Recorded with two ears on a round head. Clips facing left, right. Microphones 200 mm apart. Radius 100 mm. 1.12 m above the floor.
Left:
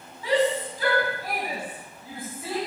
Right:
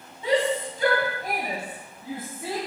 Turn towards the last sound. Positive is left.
turn(degrees=-20)  # may be behind; listen again after turning